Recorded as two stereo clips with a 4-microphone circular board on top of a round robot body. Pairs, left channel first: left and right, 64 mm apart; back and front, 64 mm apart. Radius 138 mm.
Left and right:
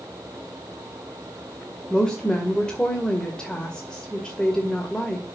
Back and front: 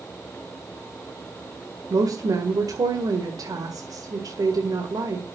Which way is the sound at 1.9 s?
15° left.